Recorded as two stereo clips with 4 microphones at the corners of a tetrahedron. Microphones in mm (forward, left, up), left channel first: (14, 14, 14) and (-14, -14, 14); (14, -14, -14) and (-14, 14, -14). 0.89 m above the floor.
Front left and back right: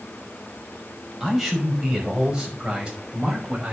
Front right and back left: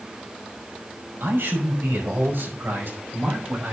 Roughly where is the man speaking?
Behind left.